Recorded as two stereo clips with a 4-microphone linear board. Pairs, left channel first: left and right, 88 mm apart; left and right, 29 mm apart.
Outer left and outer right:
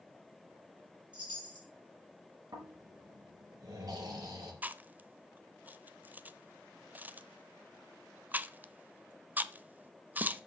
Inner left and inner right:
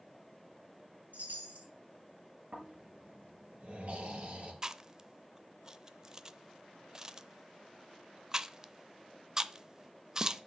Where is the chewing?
20° right (ahead or behind), 0.6 m.